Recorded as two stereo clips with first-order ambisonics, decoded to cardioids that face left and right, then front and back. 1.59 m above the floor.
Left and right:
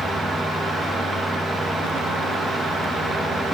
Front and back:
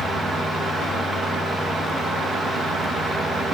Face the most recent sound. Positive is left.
No sound to turn to.